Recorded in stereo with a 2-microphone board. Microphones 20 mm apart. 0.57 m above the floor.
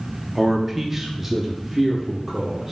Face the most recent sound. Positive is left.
turn(degrees=-10)  # may be behind; listen again after turning